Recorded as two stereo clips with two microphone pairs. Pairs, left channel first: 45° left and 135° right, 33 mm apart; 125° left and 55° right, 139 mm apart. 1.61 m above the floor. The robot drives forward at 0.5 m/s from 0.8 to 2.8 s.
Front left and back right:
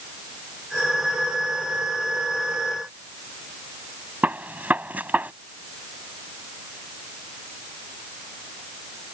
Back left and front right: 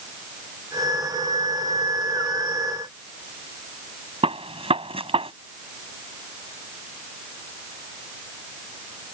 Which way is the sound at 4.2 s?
100° right.